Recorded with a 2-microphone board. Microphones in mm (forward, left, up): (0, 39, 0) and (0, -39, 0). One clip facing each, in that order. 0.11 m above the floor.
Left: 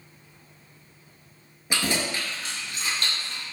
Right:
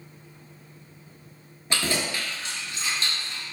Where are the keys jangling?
10° left (ahead or behind), 1.0 m; by 3.4 s 65° left (ahead or behind), 1.8 m.